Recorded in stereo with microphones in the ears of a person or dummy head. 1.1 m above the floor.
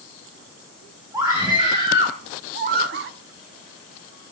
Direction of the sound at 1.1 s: 15° right (ahead or behind).